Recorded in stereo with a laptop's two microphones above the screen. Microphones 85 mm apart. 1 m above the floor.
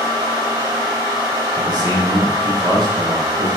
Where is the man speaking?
50° right (ahead or behind), 1.1 m.